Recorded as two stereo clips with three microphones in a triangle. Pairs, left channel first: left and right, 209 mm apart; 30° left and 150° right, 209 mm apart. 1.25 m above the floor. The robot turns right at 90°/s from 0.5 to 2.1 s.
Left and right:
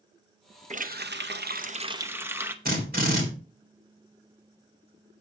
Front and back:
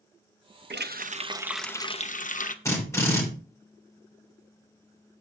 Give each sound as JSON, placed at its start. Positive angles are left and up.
{"t": 0.7, "sound": "a running tap", "azimuth_deg": -140, "distance_m": 0.6}
{"t": 2.6, "sound": "a drill", "azimuth_deg": -45, "distance_m": 3.0}